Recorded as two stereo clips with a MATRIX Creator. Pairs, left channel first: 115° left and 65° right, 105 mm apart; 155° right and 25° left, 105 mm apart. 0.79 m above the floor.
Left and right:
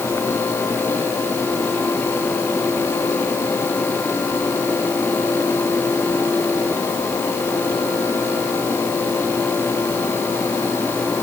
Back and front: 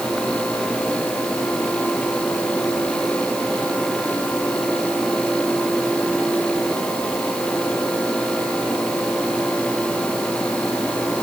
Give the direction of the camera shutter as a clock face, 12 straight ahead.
No camera shutter in this recording.